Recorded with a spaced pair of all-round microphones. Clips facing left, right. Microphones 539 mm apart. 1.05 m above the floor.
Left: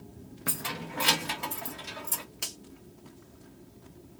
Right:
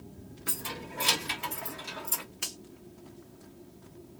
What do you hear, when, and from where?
0.5 s keys jangling: 75° left (ahead or behind), 0.8 m; by 2.2 s 45° left (ahead or behind), 1.2 m
2.4 s a finger snap: 60° left (ahead or behind), 1.4 m